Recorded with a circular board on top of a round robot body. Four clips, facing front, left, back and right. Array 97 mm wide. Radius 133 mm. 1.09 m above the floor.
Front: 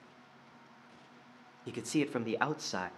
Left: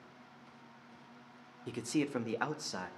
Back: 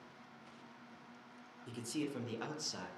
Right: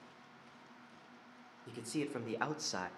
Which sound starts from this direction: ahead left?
A man speaking, at 1.7 s.